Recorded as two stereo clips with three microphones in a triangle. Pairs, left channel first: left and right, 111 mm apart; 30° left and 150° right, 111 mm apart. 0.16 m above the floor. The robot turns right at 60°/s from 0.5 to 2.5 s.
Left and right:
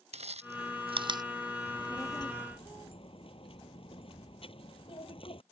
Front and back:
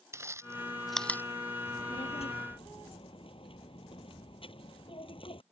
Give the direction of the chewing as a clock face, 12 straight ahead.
3 o'clock.